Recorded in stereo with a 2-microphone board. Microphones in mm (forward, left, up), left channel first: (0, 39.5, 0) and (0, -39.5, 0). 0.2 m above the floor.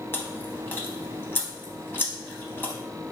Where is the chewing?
30° left (ahead or behind), 0.5 m.